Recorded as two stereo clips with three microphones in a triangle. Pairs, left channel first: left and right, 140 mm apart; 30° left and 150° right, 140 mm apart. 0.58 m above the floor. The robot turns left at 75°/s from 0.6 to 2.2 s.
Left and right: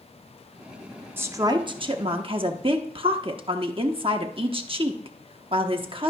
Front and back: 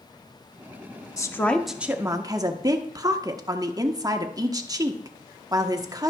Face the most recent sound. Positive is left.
turn(degrees=-100)